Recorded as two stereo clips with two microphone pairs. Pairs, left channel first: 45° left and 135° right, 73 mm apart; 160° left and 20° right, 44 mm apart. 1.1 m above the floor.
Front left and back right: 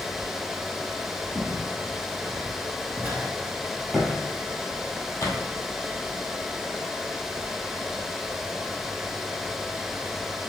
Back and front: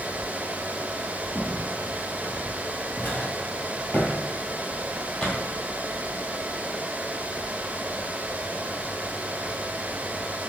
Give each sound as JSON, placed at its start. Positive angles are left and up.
{"t": 1.4, "sound": "footsteps", "azimuth_deg": -160, "distance_m": 2.0}